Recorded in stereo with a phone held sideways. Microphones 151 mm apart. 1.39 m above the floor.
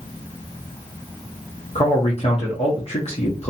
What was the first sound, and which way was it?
A man speaking, 45° left (ahead or behind).